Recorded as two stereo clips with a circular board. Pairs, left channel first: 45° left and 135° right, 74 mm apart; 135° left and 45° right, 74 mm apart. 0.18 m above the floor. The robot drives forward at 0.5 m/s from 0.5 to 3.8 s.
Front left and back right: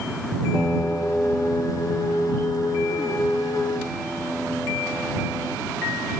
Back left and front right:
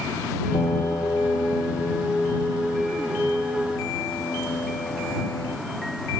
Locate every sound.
0.5 s a piano: 120° left; by 5.6 s 130° left